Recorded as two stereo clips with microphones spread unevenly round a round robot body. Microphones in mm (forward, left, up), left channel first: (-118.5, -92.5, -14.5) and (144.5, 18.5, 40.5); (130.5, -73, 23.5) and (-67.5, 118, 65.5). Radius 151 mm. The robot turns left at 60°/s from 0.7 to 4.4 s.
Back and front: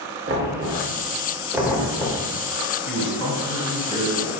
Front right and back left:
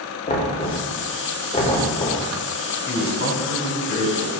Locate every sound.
0.3 s knocking: 20° right, 1.0 m; by 2.3 s 115° right, 1.0 m
2.9 s a man speaking: 15° left, 1.8 m; by 4.3 s 70° right, 1.8 m